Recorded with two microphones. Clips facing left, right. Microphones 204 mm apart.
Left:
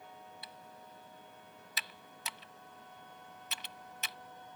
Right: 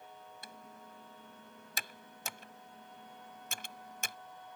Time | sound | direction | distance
0.4 | typing on a keyboard | 50° right (ahead or behind) | ?